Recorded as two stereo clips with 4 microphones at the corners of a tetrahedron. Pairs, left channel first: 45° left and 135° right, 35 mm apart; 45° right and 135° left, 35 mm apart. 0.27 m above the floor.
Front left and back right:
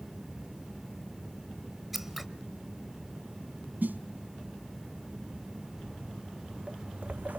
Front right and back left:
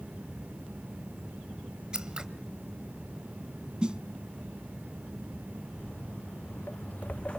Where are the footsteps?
55° right, 2 m; by 7.4 s 110° right, 0.7 m.